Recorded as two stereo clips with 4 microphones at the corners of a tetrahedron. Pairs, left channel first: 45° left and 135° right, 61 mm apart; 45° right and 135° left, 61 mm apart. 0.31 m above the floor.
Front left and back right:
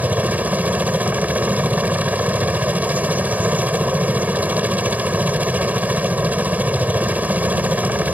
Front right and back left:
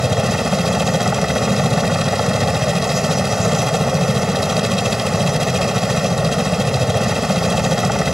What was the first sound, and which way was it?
A helicopter, 145° right.